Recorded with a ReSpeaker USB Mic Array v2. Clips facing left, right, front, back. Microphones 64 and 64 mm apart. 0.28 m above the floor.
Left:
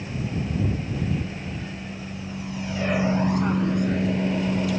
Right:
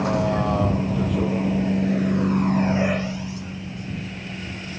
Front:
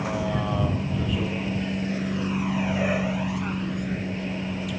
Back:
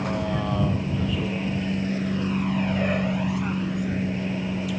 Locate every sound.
0.0 s a vehicle: 90° right; by 4.8 s 90° left